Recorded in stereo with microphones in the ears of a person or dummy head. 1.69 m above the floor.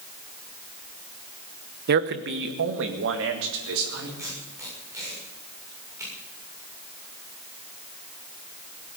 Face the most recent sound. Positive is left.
turn(degrees=-15)  # may be behind; listen again after turning